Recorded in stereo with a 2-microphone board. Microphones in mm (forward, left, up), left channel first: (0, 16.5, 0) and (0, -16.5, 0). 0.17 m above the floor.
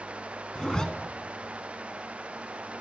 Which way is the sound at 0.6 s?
25° left (ahead or behind).